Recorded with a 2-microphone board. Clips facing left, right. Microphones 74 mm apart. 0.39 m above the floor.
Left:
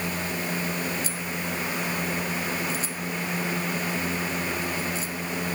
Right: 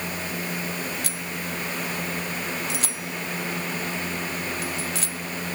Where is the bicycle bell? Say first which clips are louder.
Left 1 dB; 70° right (ahead or behind); by 5.2 s 85° right.